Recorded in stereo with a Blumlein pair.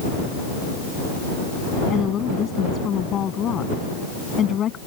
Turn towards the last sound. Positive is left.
turn(degrees=25)